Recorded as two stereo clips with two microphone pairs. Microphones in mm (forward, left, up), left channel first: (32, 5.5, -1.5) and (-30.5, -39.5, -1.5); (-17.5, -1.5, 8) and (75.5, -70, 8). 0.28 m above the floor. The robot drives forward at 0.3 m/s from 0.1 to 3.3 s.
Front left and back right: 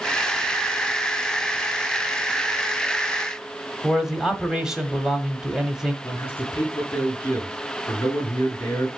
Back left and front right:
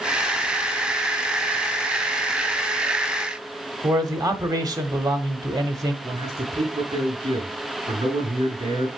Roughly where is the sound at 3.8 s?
Ahead right.